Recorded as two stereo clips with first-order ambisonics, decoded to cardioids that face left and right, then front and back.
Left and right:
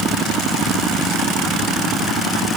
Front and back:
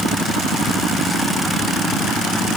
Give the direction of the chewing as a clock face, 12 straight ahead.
I don't hear chewing.